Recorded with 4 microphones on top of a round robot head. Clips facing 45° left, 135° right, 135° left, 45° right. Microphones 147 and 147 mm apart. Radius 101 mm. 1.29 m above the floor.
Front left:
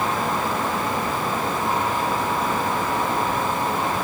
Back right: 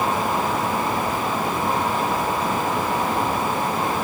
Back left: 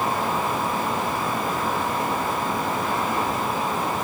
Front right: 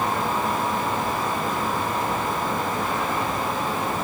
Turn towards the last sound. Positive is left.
No sound to turn to.